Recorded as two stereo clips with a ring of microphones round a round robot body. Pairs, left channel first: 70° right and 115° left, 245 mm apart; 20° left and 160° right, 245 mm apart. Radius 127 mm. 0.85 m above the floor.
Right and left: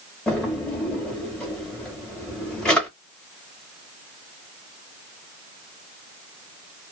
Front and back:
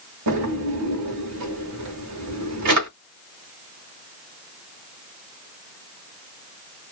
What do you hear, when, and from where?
0.3 s a drawer: 155° right, 1.1 m